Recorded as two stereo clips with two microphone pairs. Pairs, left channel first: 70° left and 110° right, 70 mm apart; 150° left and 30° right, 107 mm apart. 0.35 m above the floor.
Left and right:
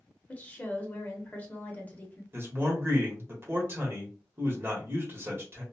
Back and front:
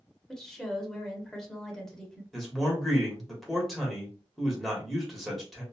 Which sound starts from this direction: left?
A woman speaking, at 0.3 s.